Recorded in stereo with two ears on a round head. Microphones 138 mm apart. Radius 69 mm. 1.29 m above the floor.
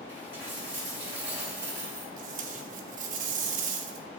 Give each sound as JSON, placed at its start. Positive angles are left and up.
{"t": 0.1, "sound": "a dropped coin", "side_deg": -15, "distance_m": 2.5}
{"t": 2.2, "sound": "tape being pulled", "side_deg": -55, "distance_m": 0.9}